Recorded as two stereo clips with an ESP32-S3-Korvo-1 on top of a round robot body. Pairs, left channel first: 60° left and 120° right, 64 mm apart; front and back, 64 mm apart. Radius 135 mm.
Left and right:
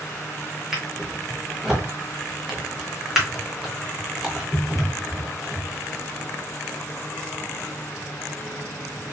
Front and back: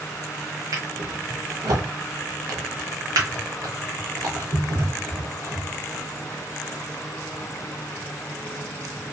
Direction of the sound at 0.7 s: 155° left.